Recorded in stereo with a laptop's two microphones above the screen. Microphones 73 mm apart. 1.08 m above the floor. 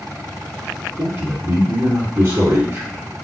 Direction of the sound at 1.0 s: 75° right (ahead or behind).